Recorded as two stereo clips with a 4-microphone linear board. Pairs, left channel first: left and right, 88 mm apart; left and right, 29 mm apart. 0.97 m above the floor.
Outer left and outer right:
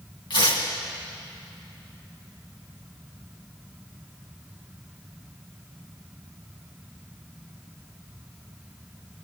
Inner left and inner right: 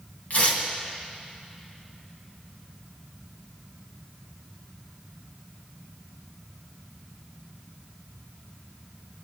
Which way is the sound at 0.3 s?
65° left (ahead or behind).